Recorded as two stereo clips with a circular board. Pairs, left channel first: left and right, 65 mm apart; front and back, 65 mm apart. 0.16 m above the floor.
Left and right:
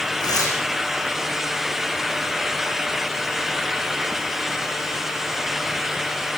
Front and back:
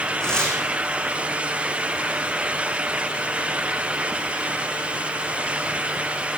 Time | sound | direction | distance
0.2 | tearing paper | 80° left | 5.5 m